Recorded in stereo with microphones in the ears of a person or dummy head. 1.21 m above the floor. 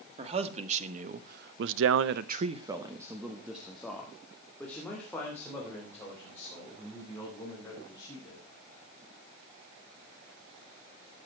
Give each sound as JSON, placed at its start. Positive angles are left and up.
{"t": 0.2, "sound": "a man speaking", "side_deg": -35, "distance_m": 1.9}